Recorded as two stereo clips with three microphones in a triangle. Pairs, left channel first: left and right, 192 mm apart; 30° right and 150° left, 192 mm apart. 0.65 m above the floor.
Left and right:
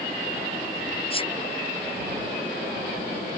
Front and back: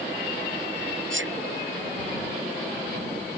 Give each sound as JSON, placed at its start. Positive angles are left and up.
{"t": 1.1, "sound": "a sneeze", "azimuth_deg": 150}